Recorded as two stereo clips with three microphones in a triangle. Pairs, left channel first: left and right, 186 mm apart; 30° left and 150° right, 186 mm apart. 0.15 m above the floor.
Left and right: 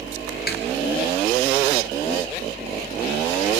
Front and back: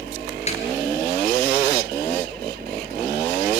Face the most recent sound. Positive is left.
turn(degrees=80)